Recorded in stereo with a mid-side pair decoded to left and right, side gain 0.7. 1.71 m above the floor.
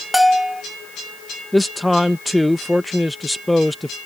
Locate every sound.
0.1 s a bell: straight ahead
1.5 s a man speaking: 5° left